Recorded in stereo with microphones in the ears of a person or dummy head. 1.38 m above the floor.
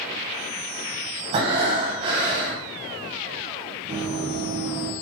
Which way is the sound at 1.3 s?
30° right (ahead or behind).